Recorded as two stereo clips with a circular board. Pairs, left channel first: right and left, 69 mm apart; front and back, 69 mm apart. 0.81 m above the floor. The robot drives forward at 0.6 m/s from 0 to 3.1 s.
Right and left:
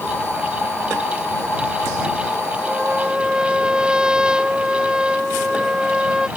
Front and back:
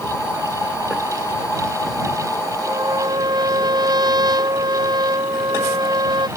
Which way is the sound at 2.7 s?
165° left.